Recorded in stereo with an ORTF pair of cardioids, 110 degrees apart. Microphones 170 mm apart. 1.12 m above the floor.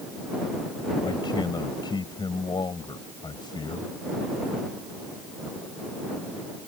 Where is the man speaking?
25° left.